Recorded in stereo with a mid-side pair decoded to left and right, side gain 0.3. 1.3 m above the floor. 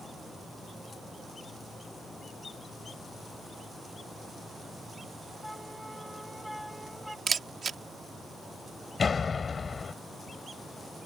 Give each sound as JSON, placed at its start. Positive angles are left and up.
{"t": 5.4, "sound": "a flute", "azimuth_deg": 0}
{"t": 7.3, "sound": "a camera shutter", "azimuth_deg": -60}
{"t": 9.0, "sound": "a door slam", "azimuth_deg": 55}